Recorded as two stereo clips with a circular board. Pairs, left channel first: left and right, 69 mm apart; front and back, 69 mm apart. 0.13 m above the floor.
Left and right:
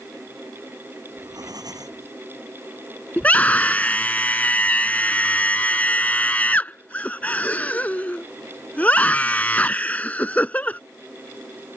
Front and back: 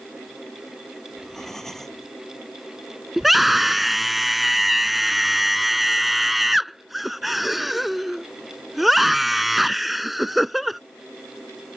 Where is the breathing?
85° right.